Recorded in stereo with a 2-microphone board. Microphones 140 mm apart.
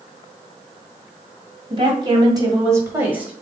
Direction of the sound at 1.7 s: 35° right (ahead or behind).